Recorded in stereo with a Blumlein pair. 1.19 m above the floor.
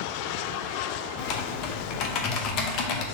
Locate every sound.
1.2 s typing on a keyboard: 35° left, 0.6 m